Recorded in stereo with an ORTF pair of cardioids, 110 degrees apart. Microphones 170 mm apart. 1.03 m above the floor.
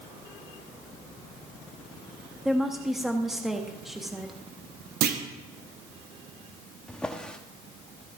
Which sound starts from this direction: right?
A clunk, at 5.0 s.